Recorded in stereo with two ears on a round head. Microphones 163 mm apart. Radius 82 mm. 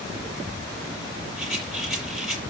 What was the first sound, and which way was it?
A rattle, centre (ahead or behind).